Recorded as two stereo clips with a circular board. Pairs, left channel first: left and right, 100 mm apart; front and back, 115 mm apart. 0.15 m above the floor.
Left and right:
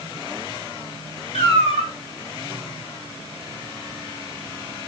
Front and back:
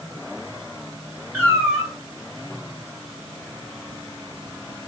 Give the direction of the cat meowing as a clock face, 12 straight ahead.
9 o'clock.